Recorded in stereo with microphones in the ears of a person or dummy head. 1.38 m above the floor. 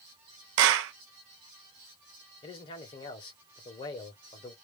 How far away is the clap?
About 0.6 m.